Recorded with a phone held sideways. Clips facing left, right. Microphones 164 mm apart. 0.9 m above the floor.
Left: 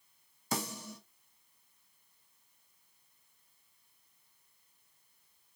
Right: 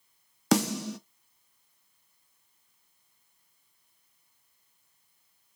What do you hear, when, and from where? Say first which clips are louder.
0.5 s a snare drum: right 13 dB; 80° right, 0.6 m